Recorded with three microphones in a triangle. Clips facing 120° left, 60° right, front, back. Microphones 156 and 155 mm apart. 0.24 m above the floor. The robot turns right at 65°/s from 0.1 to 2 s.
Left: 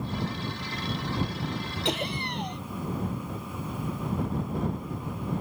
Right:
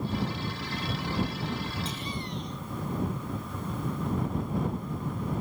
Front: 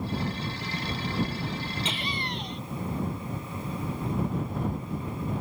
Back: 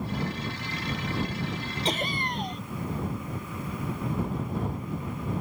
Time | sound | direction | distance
1.9 | laughter | 125° left | ?